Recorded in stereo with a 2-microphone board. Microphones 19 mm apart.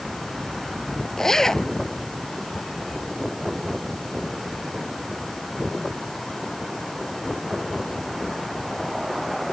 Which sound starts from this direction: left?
A zipper, at 1.2 s.